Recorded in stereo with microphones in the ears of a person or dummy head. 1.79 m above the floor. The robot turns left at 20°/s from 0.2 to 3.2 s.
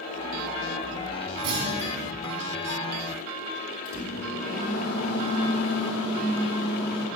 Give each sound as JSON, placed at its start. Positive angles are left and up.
{"t": 1.4, "sound": "a clunk", "side_deg": -65, "distance_m": 4.0}
{"t": 3.9, "sound": "a microwave", "side_deg": 75, "distance_m": 4.0}